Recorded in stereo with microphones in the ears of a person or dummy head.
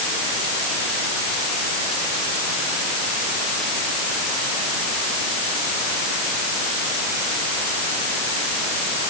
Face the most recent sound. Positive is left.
No sound to turn to.